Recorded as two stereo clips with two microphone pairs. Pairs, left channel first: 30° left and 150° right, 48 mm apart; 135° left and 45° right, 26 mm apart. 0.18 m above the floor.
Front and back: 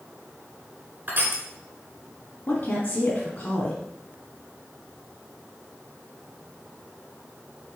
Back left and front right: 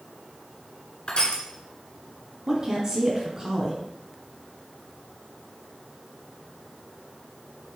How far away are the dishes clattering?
I don't hear dishes clattering.